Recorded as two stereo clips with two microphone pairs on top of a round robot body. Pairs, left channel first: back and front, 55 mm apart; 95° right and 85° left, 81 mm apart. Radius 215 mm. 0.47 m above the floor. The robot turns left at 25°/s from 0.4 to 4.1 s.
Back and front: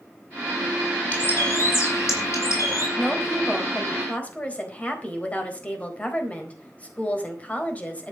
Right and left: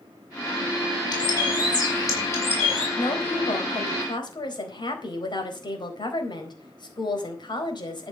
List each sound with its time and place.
1.1 s a bird: 125° right, 6 m; by 2.9 s 170° right, 6 m
3.0 s a woman speaking: 90° right, 4 m; by 8.1 s 115° right, 4 m